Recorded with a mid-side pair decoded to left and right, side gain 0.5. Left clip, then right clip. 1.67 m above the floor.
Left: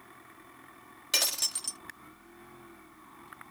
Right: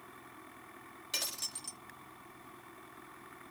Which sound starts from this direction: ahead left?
Breaking glass, at 1.1 s.